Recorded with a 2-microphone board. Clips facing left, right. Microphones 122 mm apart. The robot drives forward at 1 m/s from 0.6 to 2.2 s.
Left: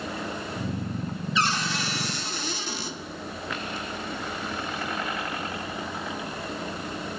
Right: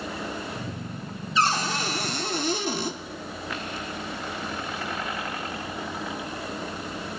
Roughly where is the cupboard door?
Right.